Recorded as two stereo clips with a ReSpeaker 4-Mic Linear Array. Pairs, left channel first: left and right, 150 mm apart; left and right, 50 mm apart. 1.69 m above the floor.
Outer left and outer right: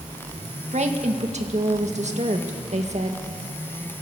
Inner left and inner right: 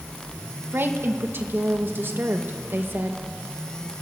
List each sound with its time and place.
0.7 s a woman speaking: 50° right (ahead or behind), 2.0 m